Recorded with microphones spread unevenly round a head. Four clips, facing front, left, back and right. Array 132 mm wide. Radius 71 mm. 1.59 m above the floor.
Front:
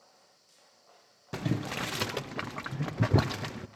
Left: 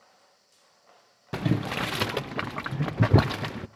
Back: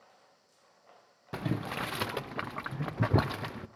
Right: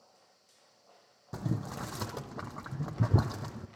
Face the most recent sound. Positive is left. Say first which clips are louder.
# left 9 dB, front 1 dB
turn(degrees=65)